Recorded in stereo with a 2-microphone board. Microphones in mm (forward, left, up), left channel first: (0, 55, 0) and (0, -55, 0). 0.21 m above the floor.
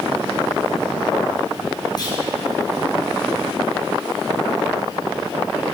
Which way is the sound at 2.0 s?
40° left (ahead or behind).